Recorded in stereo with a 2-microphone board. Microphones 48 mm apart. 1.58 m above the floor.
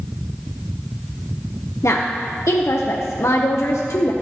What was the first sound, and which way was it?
A woman speaking, 70° left (ahead or behind).